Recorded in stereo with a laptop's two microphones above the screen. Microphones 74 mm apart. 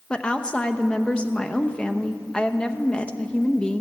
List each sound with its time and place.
0.1 s a woman speaking: 10° left (ahead or behind), 0.9 m